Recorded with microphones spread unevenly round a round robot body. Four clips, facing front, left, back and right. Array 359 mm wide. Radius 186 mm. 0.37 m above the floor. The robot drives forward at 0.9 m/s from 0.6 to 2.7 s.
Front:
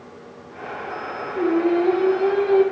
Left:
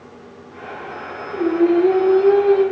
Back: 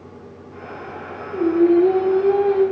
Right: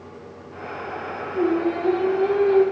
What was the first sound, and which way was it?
Singing, 135° left.